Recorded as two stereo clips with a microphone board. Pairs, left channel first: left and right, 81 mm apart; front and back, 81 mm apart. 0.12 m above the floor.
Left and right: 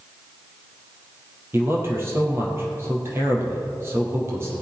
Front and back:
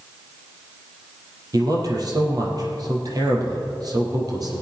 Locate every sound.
1.5 s a man speaking: 145° right, 4 m